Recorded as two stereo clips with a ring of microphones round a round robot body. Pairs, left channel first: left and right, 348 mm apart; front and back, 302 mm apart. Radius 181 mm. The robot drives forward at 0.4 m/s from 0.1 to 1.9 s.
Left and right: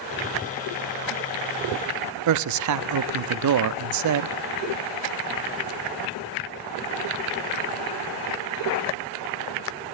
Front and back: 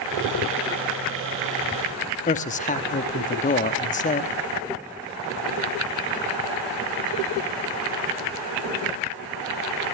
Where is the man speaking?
65° right, 0.8 m.